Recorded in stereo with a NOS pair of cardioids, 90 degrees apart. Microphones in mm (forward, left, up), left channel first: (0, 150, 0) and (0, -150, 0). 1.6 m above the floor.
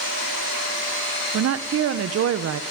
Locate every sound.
1.3 s a woman speaking: 55° right, 1.3 m